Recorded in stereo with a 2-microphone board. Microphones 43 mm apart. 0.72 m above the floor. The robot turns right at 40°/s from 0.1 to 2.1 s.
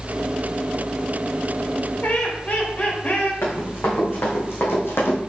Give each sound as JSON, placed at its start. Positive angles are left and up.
{"t": 2.0, "sound": "laughter", "side_deg": 45, "distance_m": 2.5}
{"t": 3.4, "sound": "running footsteps", "side_deg": 75, "distance_m": 4.0}